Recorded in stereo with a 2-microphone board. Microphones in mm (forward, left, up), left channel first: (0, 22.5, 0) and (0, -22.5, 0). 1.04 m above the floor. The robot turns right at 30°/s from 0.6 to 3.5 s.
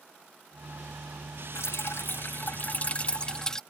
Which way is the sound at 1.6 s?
110° left.